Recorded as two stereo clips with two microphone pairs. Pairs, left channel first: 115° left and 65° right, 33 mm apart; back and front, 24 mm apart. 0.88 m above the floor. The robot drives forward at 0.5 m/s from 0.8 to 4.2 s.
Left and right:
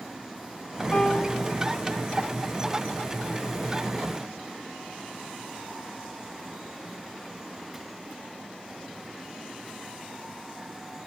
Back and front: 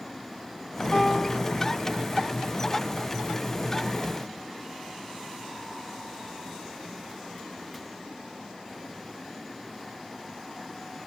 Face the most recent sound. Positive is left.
turn(degrees=165)